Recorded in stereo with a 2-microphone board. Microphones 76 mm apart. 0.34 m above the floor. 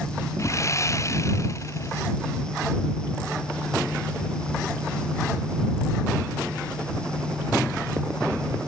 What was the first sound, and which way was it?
Sawing, 40° left (ahead or behind).